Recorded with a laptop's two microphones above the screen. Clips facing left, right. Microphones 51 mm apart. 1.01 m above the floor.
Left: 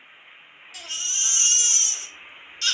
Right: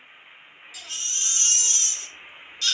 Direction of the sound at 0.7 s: 50° left (ahead or behind).